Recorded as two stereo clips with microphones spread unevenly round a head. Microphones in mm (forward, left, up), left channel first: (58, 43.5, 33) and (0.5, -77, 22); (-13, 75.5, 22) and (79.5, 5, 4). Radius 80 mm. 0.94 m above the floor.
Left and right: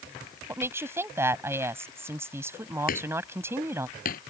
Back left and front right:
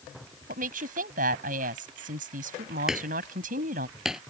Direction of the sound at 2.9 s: 50° left.